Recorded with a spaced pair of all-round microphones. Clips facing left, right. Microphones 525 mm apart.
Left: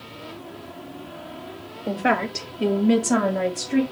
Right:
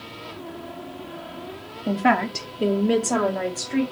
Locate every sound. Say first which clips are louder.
1.9 s a woman speaking: right 2 dB; 30° right (ahead or behind), 0.9 m; by 3.8 s 55° left (ahead or behind), 1.4 m